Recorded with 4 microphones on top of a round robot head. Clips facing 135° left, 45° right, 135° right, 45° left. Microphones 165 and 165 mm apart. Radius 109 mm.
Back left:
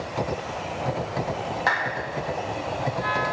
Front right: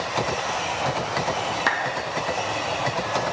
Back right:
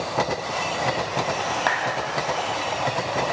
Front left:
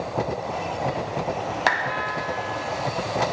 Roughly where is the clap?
Ahead right.